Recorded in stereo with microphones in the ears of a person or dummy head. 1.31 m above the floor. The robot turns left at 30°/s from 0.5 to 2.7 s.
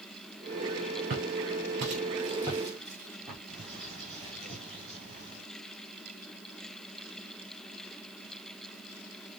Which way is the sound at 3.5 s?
30° right (ahead or behind).